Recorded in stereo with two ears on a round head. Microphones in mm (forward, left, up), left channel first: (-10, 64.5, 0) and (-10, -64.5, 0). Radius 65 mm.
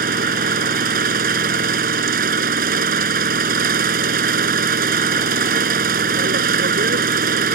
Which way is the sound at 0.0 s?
70° right (ahead or behind).